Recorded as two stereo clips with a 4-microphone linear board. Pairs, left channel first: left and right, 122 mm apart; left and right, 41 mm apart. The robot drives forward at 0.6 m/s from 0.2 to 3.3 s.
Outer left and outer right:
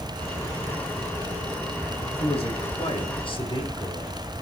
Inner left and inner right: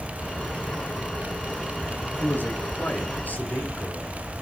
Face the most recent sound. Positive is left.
turn(degrees=50)  # may be behind; listen again after turning